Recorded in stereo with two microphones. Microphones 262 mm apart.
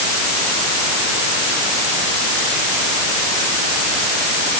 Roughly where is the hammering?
I don't hear hammering.